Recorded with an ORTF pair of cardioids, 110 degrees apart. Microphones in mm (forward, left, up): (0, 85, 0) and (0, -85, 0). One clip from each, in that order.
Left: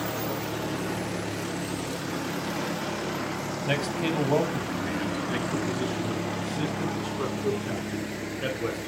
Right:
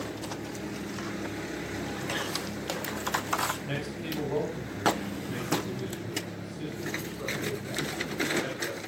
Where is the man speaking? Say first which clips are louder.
Left 8 dB; 60° left, 6 m; by 8.8 s 70° left, 13 m.